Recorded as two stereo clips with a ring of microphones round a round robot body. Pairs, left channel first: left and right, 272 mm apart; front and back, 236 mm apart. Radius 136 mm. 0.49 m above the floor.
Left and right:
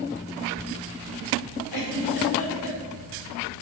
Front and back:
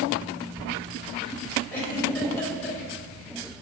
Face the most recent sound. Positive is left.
turn(degrees=80)